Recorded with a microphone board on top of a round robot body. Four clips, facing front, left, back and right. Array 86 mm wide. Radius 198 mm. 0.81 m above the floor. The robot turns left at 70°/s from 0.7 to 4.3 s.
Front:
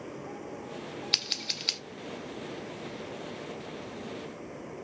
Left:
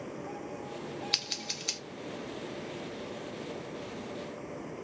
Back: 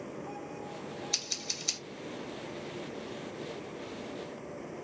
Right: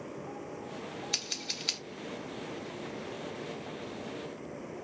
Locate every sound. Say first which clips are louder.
1.1 s scissors: left 1 dB, front 3 dB; 15° left, 0.9 m; by 1.8 s 30° right, 0.9 m